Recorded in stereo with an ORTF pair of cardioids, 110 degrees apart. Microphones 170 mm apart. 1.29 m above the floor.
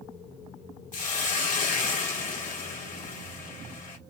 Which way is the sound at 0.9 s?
50° left.